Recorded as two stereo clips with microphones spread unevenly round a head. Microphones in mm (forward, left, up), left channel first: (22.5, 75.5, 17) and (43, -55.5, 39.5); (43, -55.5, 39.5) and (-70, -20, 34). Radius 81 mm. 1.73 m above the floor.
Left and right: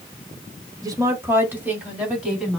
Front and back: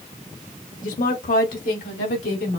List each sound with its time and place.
0.8 s a woman speaking: 20° right, 1.3 m; by 2.6 s straight ahead, 3 m